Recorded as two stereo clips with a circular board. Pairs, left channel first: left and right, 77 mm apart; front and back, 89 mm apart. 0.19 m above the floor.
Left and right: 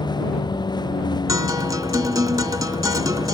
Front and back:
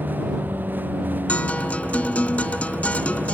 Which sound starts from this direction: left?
A vehicle, at 0.0 s.